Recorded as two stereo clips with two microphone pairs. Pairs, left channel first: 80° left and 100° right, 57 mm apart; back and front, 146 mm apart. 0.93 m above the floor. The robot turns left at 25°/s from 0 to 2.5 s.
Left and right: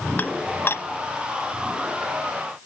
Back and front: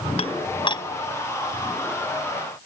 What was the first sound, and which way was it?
Dishes clattering, 140° left.